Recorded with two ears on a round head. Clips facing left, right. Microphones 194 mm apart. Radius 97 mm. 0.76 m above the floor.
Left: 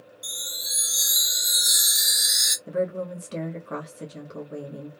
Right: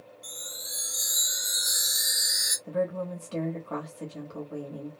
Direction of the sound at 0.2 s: 70° left (ahead or behind).